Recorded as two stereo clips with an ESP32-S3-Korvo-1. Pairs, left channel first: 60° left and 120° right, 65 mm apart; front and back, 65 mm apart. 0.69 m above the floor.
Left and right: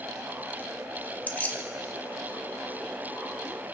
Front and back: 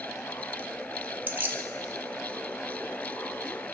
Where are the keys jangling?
125° left, 0.8 m.